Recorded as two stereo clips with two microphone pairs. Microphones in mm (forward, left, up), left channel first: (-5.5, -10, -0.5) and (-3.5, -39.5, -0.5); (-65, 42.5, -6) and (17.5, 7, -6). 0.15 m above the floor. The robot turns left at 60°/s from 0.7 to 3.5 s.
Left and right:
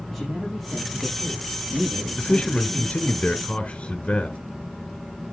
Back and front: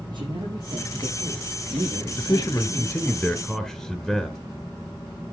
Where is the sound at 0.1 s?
15° left, 6 m; by 3.2 s 130° right, 6 m.